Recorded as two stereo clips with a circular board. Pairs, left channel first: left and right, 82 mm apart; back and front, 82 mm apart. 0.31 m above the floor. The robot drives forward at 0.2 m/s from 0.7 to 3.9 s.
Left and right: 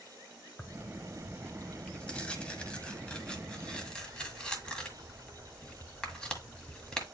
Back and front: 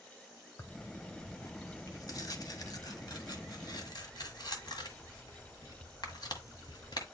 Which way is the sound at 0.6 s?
155° left.